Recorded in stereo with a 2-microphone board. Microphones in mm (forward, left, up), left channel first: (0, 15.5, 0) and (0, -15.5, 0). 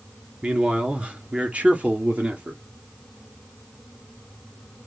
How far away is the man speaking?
About 1.9 m.